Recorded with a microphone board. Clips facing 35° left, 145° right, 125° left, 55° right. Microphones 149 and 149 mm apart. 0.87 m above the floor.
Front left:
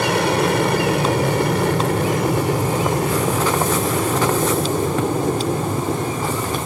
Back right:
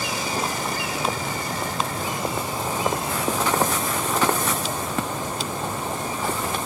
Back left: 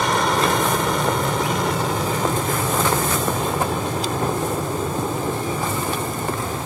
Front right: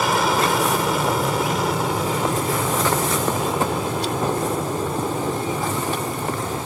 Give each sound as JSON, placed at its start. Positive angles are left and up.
{"t": 0.0, "sound": "an aircraft", "azimuth_deg": 30}